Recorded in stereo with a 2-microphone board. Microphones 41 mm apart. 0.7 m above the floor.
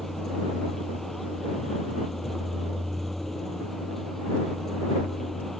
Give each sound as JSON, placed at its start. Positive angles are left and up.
{"t": 0.0, "sound": "a vehicle", "side_deg": 5}